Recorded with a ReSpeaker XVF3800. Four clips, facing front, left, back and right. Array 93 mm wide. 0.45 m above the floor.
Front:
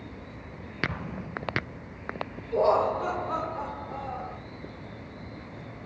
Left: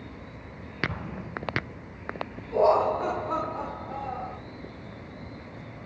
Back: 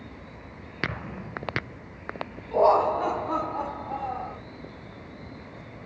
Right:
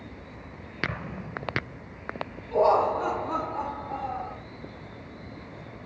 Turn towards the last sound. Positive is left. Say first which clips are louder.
# even, back 3 dB
turn(degrees=-160)